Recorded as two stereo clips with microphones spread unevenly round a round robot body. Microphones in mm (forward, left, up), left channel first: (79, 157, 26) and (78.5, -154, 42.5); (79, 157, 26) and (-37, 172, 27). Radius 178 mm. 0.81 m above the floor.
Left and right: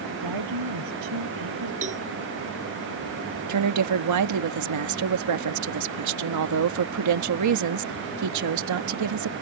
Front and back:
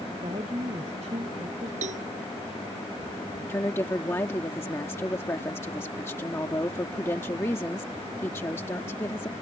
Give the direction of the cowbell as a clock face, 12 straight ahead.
5 o'clock.